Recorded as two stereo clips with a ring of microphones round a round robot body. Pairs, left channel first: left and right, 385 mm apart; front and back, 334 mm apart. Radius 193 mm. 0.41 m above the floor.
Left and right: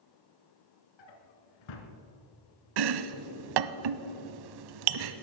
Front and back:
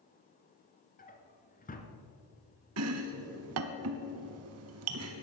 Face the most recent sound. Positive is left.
turn(degrees=-125)